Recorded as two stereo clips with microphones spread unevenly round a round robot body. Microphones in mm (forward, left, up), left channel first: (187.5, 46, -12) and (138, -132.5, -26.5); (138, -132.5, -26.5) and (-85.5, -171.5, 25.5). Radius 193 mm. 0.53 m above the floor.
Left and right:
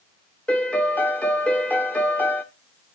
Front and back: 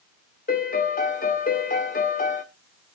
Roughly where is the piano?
Ahead.